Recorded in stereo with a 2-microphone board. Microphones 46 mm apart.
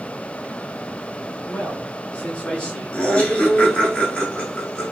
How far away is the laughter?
About 1.4 m.